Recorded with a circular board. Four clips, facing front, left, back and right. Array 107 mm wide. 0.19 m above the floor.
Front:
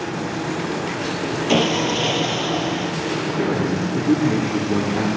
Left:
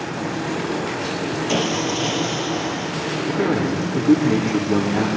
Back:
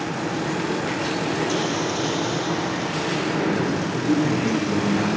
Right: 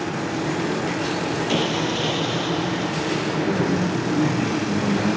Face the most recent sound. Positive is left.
turn(degrees=70)